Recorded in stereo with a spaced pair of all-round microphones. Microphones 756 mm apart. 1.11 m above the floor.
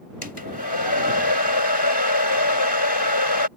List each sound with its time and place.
0.2 s a hair dryer: 30° left (ahead or behind)